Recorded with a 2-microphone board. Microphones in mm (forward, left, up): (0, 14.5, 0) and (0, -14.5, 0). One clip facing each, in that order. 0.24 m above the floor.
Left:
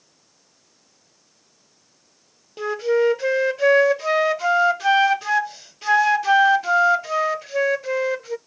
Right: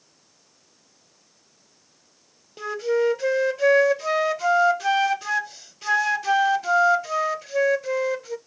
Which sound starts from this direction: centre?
A flute, at 2.6 s.